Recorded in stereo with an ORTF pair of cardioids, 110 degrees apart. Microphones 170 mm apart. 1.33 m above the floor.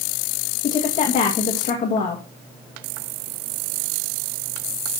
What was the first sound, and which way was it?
A woman speaking, 45° left.